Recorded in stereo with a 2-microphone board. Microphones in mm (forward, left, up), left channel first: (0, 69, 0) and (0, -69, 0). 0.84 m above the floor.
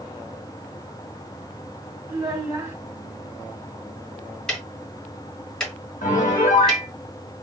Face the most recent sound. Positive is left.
turn(degrees=75)  # may be behind; listen again after turning